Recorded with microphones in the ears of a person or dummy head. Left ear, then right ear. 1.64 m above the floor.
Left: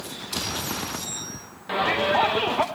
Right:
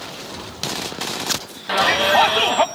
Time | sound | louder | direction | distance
1.7 | a shout | right 6 dB | 35° right (ahead or behind) | 1.1 m